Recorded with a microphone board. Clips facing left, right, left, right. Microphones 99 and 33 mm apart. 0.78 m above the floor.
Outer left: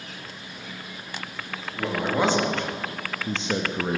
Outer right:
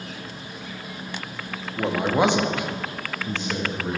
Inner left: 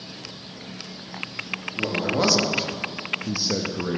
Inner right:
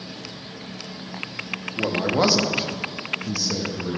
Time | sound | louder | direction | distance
1.8 | a man speaking | outer right 3 dB, inner right 2 dB | 25° right (ahead or behind) | 1.2 m